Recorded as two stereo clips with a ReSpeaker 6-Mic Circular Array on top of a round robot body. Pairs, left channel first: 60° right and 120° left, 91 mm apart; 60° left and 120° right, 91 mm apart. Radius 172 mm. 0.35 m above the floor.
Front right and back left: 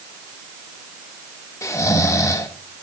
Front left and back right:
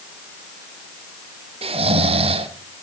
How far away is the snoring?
About 1.0 m.